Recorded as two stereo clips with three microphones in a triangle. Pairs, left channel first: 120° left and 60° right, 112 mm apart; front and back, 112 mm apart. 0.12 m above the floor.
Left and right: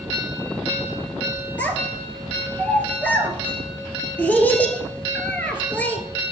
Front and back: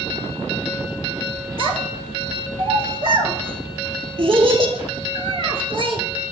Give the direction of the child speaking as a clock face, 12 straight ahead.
6 o'clock.